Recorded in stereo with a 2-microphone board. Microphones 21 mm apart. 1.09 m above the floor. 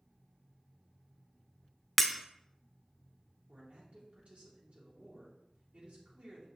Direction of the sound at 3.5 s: 75° right (ahead or behind).